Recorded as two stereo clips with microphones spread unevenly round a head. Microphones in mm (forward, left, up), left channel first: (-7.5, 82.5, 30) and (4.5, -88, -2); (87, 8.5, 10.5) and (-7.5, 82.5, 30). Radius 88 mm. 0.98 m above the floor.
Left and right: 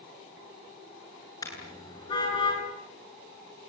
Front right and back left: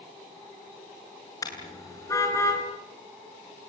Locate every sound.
1.4 s a car horn: 25° left, 8.5 m; by 2.6 s 30° left, 8 m